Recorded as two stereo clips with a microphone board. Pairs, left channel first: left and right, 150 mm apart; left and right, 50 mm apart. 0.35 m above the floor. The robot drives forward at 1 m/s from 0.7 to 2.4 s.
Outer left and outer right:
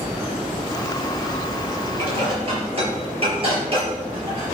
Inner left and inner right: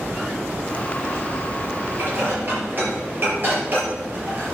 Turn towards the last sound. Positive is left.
turn(degrees=-40)  # may be behind; listen again after turning